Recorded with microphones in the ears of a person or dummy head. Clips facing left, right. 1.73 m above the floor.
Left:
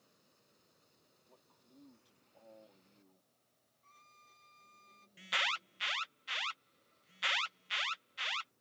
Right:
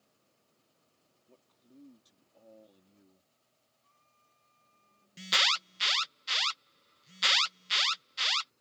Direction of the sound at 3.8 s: 55° left (ahead or behind).